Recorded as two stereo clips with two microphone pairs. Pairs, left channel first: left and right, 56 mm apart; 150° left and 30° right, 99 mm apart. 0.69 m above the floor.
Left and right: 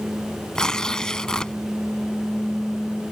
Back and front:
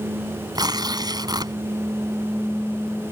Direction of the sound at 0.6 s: 10° left.